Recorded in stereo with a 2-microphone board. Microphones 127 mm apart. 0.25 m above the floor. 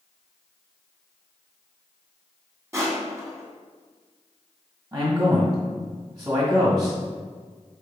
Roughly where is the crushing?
Right.